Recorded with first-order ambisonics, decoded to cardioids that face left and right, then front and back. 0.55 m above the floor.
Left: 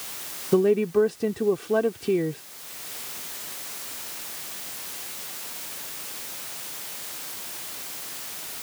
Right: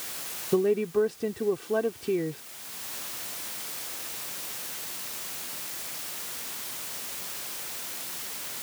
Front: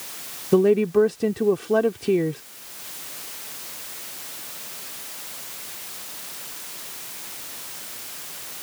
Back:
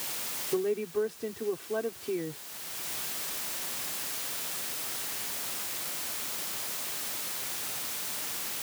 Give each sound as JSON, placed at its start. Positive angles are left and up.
{"t": 0.5, "sound": "a woman speaking", "azimuth_deg": 15}